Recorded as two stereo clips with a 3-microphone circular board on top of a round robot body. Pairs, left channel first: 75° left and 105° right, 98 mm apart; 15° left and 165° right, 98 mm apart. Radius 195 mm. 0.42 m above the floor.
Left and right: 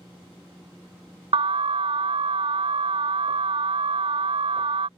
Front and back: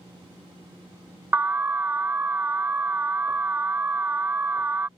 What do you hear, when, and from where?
1.3 s an alarm: 95° right